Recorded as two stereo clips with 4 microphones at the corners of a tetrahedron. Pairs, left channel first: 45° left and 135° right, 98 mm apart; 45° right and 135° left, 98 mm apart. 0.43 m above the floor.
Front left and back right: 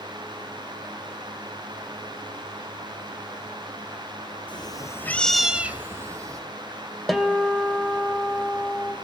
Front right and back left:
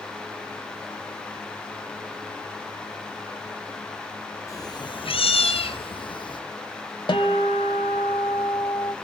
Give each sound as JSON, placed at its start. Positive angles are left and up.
{"t": 4.5, "sound": "a cat meowing", "azimuth_deg": 10, "distance_m": 1.3}
{"t": 7.1, "sound": "a guitar", "azimuth_deg": -45, "distance_m": 1.8}